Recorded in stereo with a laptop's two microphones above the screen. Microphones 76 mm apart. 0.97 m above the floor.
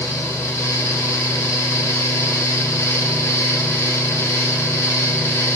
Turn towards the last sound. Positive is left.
turn(degrees=35)  # may be behind; listen again after turning